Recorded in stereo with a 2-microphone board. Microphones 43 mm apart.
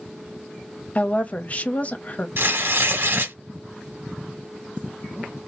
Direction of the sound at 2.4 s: 55° right (ahead or behind).